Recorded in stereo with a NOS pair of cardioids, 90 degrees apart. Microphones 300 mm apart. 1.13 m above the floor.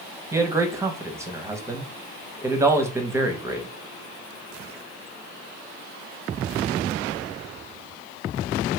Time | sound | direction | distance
0.3 | a man speaking | 10° right | 0.8 m